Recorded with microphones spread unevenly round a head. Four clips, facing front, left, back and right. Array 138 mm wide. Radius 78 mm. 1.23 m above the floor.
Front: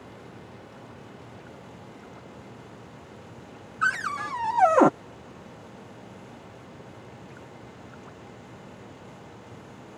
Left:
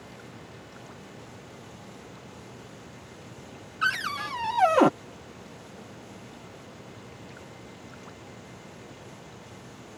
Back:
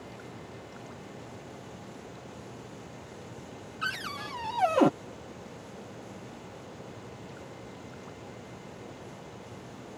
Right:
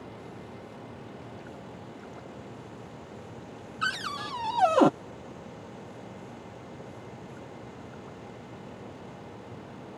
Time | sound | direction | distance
3.8 | a cupboard door | 110° right | ?